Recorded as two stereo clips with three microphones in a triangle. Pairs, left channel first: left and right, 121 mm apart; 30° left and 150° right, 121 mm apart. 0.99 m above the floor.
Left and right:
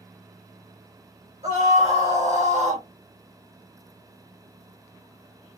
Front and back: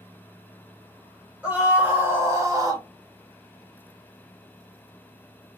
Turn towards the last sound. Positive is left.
turn(degrees=-95)